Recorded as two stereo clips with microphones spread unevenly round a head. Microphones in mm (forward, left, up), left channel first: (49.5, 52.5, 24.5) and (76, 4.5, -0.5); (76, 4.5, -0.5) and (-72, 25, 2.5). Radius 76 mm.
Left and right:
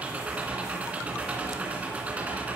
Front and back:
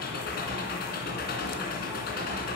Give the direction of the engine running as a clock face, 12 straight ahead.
12 o'clock.